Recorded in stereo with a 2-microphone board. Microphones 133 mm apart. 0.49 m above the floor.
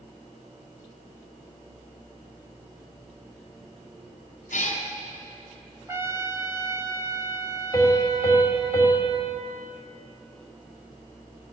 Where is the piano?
30° left (ahead or behind), 2 m.